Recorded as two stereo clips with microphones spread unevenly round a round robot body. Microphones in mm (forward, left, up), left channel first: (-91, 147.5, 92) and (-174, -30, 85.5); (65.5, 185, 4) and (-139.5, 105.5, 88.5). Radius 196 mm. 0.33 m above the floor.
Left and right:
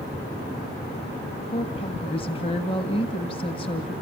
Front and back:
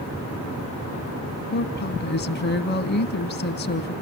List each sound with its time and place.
1.5 s a woman speaking: straight ahead, 2.5 m